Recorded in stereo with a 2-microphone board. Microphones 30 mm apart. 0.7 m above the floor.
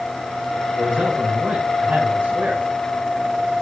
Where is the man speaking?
45° right (ahead or behind), 4 m; by 2.6 s 65° right (ahead or behind), 4.5 m.